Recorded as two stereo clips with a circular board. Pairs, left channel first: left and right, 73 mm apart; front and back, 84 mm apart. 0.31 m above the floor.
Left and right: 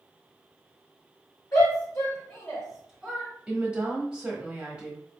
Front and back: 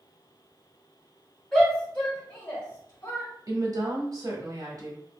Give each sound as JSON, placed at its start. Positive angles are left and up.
{"t": 1.5, "sound": "a shout", "azimuth_deg": 85, "distance_m": 1.5}
{"t": 3.5, "sound": "a woman speaking", "azimuth_deg": -160, "distance_m": 1.2}